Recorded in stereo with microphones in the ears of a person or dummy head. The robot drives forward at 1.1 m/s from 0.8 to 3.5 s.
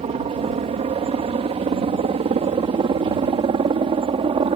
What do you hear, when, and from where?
0.0 s a helicopter: 25° right (ahead or behind)